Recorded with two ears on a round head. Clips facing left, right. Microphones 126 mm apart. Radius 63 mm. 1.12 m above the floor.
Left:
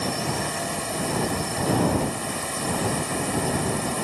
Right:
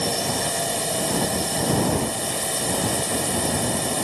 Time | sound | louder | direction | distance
0.0 | a drone | right 2 dB | 35° right (ahead or behind) | ?